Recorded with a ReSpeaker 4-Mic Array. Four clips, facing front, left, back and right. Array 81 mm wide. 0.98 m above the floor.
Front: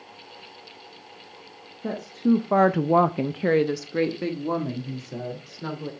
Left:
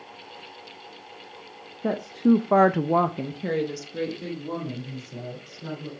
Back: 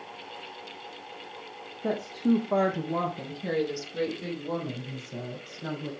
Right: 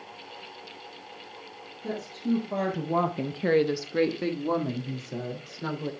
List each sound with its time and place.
1.8 s a woman speaking: 95° left, 1.1 m; by 5.9 s 50° right, 3 m